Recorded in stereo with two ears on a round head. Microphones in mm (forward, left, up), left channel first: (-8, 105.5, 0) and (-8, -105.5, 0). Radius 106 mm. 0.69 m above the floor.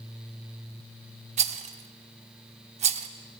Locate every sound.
1.4 s a rattle: 30° right (ahead or behind), 0.8 m